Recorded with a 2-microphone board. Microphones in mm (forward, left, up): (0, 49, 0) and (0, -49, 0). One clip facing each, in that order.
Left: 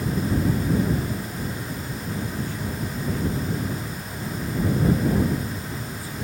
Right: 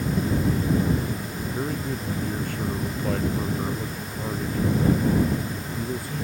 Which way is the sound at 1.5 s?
65° right (ahead or behind).